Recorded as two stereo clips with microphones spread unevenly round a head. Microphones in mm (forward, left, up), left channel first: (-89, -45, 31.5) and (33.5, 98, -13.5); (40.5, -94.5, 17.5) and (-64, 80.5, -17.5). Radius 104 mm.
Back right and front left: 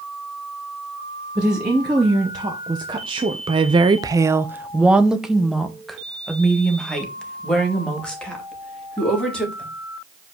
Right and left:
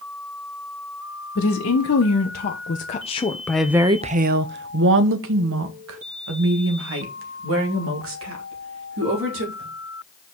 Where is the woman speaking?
30° right, 1.5 m; by 9.7 s 145° left, 3.5 m.